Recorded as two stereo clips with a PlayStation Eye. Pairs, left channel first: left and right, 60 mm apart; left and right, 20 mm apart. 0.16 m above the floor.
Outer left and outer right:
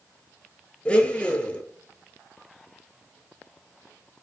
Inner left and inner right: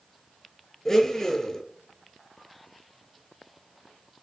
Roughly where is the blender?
Centre.